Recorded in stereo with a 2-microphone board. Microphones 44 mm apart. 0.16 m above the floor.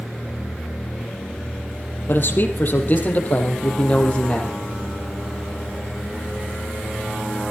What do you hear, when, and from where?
2.1 s a man speaking: 55° left (ahead or behind), 4.5 m; by 4.6 s 25° left (ahead or behind), 5.5 m